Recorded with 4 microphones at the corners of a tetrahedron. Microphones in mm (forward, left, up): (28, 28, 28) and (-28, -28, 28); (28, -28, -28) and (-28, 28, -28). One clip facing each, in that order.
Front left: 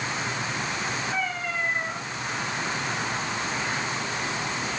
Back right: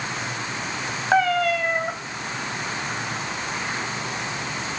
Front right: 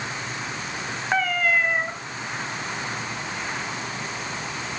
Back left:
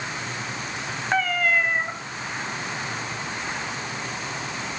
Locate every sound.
1.1 s a cat meowing: 135° right, 2.5 m